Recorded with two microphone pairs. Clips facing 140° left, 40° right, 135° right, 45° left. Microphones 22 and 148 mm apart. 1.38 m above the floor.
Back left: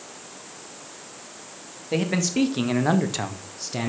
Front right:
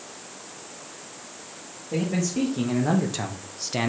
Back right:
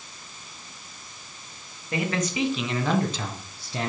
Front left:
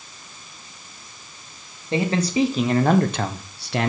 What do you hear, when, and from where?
1.9 s a man speaking: 110° left, 1.6 m; by 3.9 s 30° left, 0.9 m